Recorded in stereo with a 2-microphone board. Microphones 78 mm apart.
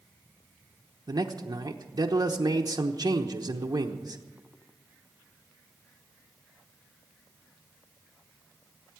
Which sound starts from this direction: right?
A man speaking, at 1.1 s.